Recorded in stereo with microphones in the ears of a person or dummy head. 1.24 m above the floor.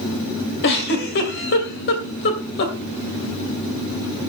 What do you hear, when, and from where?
0.6 s a giggle: 65° left (ahead or behind), 2.5 m